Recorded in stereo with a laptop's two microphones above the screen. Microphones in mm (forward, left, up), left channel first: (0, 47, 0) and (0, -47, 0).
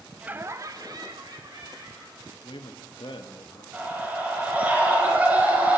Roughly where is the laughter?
Centre.